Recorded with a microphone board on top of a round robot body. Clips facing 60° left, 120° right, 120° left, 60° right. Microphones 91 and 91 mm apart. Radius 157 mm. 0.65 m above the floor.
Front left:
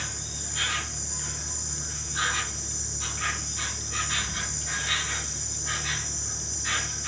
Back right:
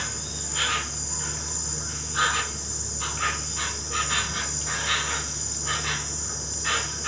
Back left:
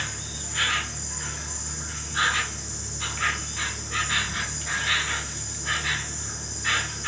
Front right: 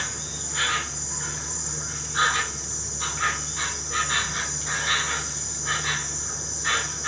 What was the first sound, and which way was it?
An insect, 125° right.